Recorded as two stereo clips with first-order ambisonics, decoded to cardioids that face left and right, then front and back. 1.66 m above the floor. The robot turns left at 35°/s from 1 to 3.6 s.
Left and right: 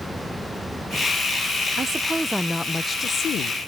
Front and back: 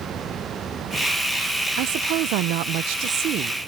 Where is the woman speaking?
165° right; by 3.6 s 135° left.